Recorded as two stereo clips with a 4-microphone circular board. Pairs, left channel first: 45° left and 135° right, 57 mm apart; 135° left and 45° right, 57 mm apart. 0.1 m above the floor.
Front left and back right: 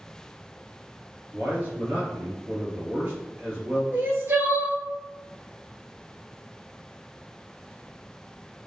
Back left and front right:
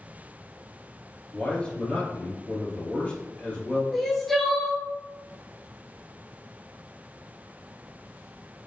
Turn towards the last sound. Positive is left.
turn(degrees=-140)